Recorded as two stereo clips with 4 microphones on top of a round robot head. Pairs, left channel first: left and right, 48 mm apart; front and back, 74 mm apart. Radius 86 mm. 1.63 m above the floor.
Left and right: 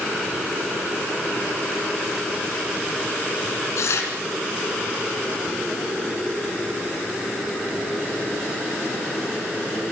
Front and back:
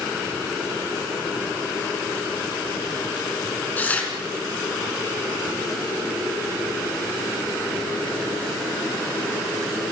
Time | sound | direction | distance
3.8 | tearing paper | 70° left | 3 m